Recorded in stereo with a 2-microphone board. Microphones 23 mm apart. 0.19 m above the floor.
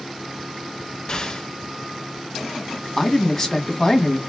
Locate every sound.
1.1 s an explosion: 35° left (ahead or behind), 0.9 m
3.0 s a man speaking: 15° left (ahead or behind), 1.3 m